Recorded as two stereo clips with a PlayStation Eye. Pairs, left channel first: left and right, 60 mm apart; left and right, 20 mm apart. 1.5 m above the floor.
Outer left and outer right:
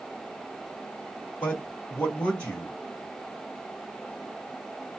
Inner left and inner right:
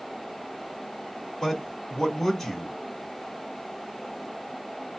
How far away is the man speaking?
About 3.5 m.